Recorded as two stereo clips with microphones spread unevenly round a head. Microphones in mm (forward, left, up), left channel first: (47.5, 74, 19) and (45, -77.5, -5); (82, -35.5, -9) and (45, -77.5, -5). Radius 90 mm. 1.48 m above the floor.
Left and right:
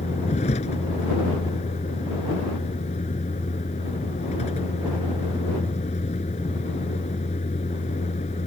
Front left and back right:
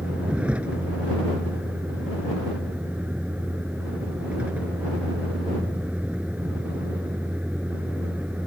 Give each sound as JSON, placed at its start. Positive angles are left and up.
{"t": 0.0, "sound": "a vehicle", "azimuth_deg": 145}